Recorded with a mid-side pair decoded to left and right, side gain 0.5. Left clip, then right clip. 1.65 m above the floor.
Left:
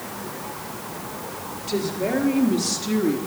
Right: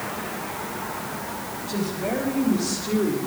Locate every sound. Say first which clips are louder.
1.7 s a woman speaking: left 4 dB; 60° left, 4 m; by 3.2 s 55° left, 3.5 m